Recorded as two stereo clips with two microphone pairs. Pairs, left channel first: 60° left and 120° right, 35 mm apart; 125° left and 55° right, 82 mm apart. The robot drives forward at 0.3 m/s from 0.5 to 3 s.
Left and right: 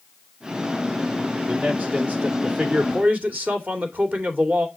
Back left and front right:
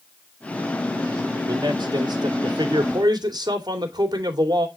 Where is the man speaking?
75° right, 2.5 m; by 4.7 s 85° right, 2.5 m.